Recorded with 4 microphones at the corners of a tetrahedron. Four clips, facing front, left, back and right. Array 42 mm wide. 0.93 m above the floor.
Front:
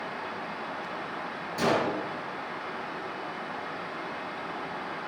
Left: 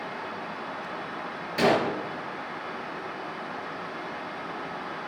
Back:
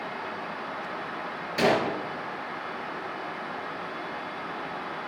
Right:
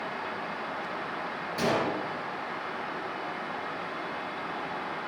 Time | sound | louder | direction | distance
1.6 | a gunshot | left 5 dB, back 3 dB | 140° left | 5 m